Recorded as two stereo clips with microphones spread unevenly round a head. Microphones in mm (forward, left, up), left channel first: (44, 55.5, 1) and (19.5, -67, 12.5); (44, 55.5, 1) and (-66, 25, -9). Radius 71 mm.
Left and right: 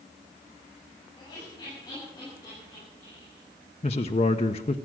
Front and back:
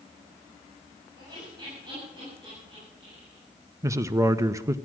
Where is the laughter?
145° left, 7.5 m; by 3.4 s 155° left, 9.5 m.